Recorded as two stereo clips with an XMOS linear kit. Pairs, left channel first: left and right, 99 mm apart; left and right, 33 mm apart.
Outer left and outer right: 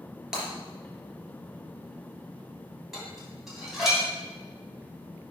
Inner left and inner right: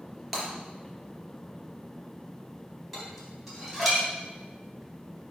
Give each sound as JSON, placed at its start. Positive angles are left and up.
{"t": 0.3, "sound": "breaking glass", "side_deg": -5, "distance_m": 3.0}
{"t": 2.9, "sound": "dishes clattering", "side_deg": -5, "distance_m": 3.0}